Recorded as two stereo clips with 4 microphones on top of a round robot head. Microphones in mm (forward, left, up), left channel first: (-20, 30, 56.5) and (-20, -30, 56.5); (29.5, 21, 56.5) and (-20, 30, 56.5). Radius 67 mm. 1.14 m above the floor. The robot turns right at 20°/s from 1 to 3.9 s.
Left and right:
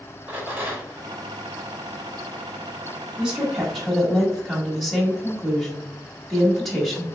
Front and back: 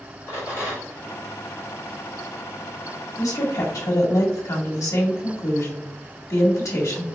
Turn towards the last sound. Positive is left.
turn(degrees=0)